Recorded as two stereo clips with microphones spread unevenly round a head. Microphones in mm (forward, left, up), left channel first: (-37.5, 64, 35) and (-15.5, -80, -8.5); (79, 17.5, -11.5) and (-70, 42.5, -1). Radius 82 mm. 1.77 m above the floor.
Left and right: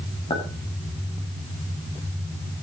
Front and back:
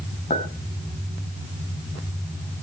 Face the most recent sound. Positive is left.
turn(degrees=35)